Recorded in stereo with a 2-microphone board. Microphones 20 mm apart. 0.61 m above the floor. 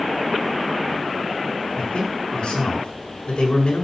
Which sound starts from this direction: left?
A man speaking, at 1.8 s.